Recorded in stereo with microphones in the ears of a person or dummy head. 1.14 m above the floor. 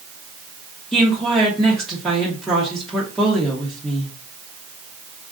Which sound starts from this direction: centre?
A woman speaking, at 0.9 s.